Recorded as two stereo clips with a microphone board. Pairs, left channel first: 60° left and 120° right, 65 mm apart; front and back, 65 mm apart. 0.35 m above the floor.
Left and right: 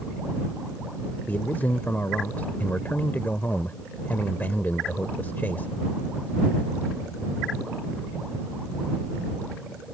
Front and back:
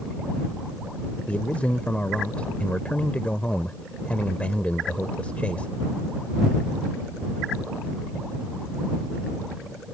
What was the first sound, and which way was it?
A man speaking, 45° left.